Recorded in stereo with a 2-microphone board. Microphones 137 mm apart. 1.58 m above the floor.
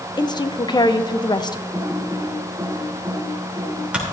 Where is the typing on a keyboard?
10° right (ahead or behind), 3.5 m.